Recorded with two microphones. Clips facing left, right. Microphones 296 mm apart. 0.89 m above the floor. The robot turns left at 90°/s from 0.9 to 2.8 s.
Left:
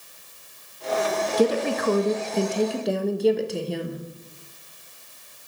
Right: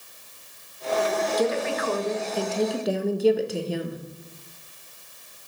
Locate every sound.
1.4 s a woman speaking: 125° left, 1.0 m; by 4.0 s straight ahead, 1.0 m